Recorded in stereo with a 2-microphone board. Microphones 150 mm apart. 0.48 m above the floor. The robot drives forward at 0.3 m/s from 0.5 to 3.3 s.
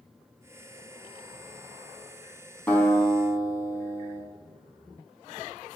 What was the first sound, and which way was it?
A guitar, 10° left (ahead or behind).